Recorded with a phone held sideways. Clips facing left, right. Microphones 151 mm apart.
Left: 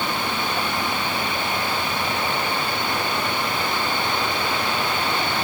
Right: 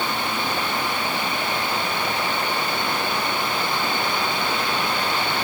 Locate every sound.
Only background noise.